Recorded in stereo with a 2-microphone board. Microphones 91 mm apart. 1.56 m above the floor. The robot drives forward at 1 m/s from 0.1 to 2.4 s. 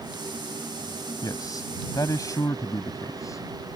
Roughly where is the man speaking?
Left.